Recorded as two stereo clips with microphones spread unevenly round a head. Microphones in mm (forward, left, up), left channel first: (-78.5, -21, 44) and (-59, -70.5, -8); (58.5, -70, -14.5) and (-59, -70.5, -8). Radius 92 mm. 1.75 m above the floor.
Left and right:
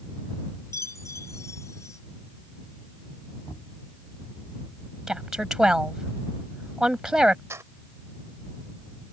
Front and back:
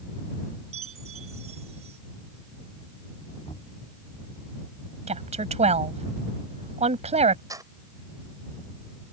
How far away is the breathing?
I don't hear breathing.